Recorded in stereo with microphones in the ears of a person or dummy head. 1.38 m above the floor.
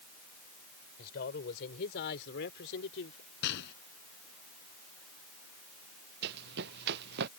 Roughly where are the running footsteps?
Right.